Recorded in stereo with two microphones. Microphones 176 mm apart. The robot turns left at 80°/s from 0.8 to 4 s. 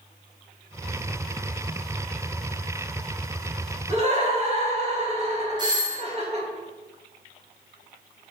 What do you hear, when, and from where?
3.9 s laughter: 30° right (ahead or behind), 0.9 m; by 6.5 s 35° right (ahead or behind), 0.9 m
5.6 s a doorbell: 25° right (ahead or behind), 0.7 m